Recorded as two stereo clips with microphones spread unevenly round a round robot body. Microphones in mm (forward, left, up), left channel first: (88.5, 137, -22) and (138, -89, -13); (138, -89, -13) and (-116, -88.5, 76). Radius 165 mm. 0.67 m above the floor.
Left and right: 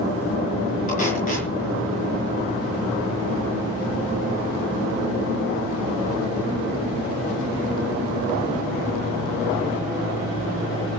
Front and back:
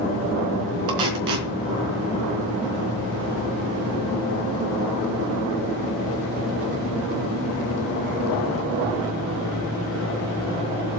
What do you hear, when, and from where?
0.9 s tape being pulled: 170° left, 5 m